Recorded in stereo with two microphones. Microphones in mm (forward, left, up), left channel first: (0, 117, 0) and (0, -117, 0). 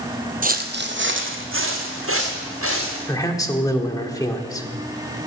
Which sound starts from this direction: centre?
A man speaking, at 3.1 s.